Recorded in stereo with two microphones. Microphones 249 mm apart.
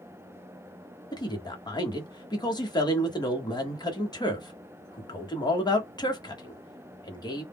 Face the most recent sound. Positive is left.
turn(degrees=15)  # may be behind; listen again after turning